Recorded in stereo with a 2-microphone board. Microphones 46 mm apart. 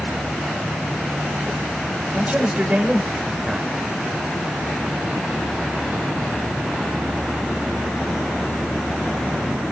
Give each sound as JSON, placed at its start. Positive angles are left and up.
{"t": 2.1, "sound": "a man speaking", "side_deg": -25, "distance_m": 1.5}